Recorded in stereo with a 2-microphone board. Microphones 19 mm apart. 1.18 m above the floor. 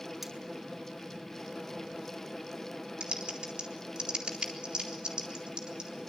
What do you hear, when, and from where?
0.2 s cutlery clinking: 20° right (ahead or behind), 6 m
3.0 s typing on a keyboard: 60° right (ahead or behind), 3.5 m